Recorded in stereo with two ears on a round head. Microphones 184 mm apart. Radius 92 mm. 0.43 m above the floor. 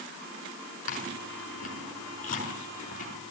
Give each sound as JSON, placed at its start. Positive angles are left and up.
{"t": 0.9, "sound": "chewing", "side_deg": 40, "distance_m": 6.0}